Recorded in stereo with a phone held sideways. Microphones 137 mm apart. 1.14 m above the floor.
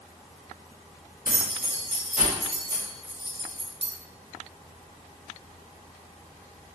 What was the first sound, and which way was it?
Keys jangling, 80° right.